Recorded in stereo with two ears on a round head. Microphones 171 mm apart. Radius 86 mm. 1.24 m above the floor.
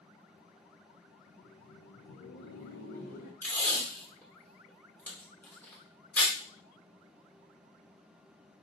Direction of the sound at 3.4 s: 10° left (ahead or behind).